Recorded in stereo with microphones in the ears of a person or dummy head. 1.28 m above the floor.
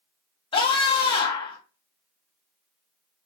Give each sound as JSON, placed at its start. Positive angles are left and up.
{"t": 0.5, "sound": "a scream", "side_deg": 35, "distance_m": 1.6}